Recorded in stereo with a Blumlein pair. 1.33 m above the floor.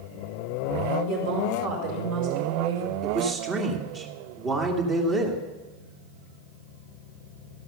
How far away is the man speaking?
About 2.5 m.